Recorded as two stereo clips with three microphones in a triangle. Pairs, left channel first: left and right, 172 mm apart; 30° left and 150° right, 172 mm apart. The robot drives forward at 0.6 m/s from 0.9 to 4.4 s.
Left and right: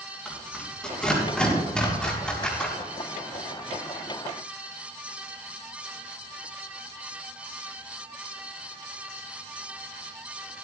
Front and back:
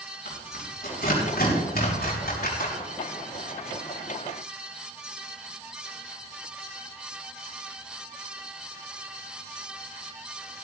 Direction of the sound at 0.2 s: 5° left.